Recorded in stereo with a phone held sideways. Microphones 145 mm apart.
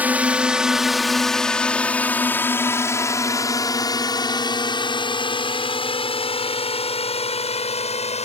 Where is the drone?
10° right (ahead or behind); by 8.2 s 45° left (ahead or behind).